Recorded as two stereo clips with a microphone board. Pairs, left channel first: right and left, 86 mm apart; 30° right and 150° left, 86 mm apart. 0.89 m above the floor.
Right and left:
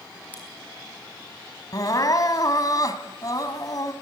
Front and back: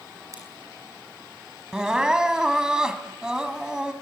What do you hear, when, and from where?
0.3 s scissors: 160° right, 6 m
1.7 s crying: 130° right, 1.6 m